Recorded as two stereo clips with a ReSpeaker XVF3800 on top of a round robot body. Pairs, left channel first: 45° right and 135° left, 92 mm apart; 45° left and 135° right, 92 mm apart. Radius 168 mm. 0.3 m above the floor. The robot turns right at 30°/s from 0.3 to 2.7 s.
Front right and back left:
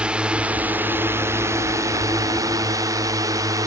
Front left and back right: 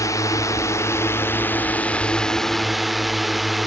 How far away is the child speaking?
I don't hear a child speaking.